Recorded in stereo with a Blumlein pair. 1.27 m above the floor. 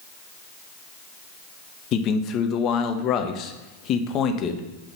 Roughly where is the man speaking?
Ahead left.